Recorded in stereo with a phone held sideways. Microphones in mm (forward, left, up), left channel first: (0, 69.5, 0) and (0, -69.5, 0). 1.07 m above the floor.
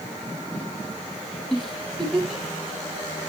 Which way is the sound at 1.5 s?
Centre (ahead or behind).